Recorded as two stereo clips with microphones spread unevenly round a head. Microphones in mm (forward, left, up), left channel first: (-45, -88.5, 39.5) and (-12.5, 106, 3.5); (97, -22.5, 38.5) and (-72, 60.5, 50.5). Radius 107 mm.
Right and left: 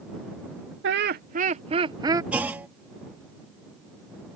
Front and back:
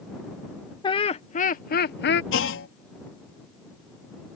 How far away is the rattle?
No rattle in this recording.